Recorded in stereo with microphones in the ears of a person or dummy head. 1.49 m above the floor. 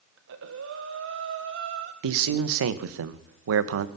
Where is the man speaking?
75° right (ahead or behind), 1.1 m.